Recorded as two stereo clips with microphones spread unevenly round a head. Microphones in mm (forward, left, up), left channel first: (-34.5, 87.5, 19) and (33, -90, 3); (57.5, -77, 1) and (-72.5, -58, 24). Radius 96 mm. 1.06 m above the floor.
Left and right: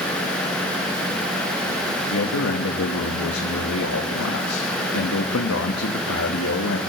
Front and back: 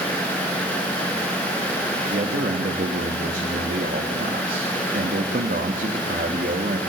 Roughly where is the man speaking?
Behind left.